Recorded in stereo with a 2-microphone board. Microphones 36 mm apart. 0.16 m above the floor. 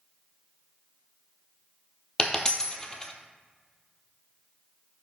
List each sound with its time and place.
2.2 s a dropped coin: 20° left (ahead or behind), 0.9 m